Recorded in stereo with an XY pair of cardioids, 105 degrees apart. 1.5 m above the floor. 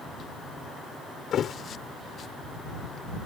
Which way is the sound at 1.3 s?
60° left.